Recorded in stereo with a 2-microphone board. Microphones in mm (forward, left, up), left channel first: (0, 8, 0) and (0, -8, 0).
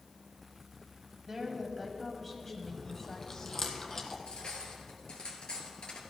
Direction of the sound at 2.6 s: 25° left (ahead or behind).